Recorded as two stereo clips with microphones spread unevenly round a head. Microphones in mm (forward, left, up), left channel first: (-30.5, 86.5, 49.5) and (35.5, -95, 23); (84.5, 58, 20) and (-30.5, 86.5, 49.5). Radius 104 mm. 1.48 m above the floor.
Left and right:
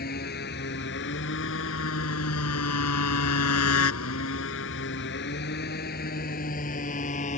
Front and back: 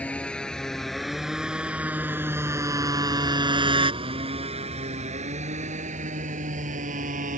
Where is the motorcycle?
65° left; by 7.4 s 165° left.